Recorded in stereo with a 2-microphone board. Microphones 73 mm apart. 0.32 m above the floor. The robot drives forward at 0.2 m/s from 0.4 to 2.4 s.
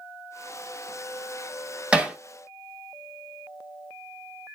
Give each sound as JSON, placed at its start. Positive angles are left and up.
{"t": 1.9, "sound": "hammering", "side_deg": -15, "distance_m": 0.9}